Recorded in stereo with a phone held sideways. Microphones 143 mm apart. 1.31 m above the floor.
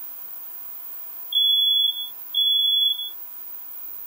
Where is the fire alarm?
5° right (ahead or behind).